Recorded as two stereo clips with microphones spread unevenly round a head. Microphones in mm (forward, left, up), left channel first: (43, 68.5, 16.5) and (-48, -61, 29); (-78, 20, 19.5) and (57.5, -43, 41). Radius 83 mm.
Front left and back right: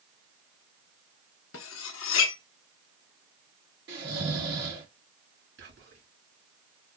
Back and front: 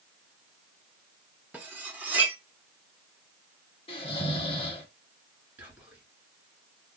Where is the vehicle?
I don't hear a vehicle.